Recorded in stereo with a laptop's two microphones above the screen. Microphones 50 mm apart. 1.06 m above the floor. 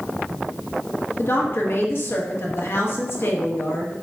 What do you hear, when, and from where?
1.2 s a woman speaking: 50° left (ahead or behind), 1.0 m